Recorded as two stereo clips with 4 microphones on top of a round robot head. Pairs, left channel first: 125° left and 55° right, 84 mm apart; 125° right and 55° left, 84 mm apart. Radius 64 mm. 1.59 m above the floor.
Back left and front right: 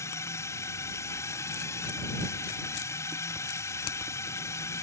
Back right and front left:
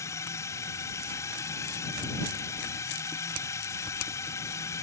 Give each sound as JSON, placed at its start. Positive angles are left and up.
{"t": 0.0, "sound": "a drone", "azimuth_deg": 180}